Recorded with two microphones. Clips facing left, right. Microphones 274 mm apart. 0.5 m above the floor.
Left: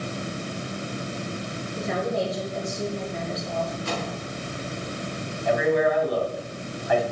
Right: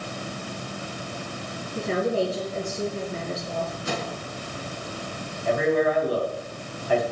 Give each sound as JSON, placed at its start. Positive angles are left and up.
{"t": 1.8, "sound": "a woman speaking", "side_deg": -35, "distance_m": 7.5}
{"t": 3.9, "sound": "a microwave", "side_deg": -20, "distance_m": 6.0}
{"t": 5.5, "sound": "a man speaking", "side_deg": -35, "distance_m": 3.5}